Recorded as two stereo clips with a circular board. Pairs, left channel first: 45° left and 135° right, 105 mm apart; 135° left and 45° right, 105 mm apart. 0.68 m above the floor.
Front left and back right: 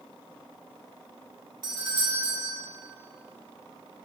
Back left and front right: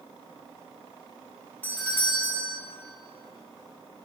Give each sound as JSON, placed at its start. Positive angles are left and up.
{"t": 1.6, "sound": "a doorbell", "azimuth_deg": -160, "distance_m": 1.5}